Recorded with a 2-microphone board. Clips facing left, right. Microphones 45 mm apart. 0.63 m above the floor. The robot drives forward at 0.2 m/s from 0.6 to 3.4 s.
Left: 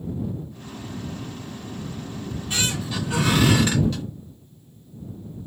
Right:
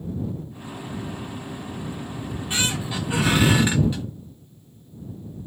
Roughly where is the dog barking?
I don't hear a dog barking.